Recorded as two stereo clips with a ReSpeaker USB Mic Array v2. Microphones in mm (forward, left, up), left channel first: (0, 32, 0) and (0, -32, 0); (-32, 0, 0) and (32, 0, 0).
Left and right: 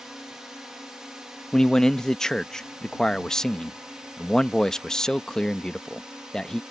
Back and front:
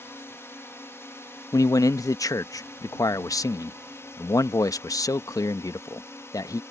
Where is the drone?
170° right; by 6.7 s 165° right.